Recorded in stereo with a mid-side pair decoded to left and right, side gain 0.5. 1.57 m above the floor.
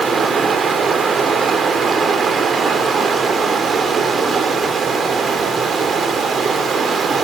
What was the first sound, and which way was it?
Running water, 45° right.